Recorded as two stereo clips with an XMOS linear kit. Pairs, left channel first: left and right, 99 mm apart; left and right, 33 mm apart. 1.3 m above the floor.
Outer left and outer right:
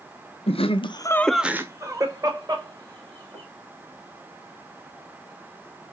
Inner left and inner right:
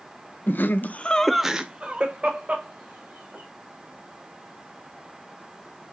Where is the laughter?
75° left (ahead or behind), 0.9 m; by 3.4 s 50° right (ahead or behind), 2.5 m.